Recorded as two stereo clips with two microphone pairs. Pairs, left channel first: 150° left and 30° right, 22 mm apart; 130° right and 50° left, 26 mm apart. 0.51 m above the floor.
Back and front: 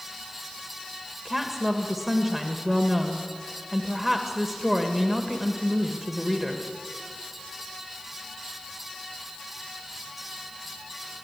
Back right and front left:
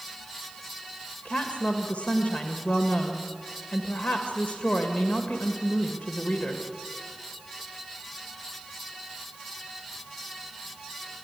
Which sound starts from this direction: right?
A woman speaking, at 1.2 s.